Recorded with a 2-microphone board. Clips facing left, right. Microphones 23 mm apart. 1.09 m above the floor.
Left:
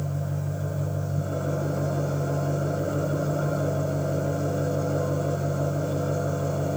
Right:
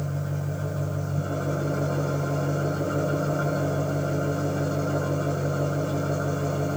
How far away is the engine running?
About 9 m.